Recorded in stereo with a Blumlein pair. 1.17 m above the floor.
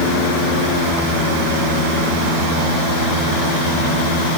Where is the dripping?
I don't hear dripping.